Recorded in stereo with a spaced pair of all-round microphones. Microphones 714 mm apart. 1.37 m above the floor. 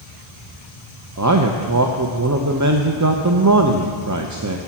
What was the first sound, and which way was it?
A man speaking, 25° right (ahead or behind).